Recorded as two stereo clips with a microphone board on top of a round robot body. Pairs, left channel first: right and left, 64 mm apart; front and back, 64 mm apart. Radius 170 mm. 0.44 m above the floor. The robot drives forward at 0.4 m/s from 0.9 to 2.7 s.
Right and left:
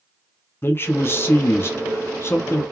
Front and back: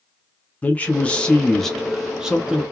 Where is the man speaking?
60° right, 1.1 m; by 2.6 s 115° right, 1.1 m.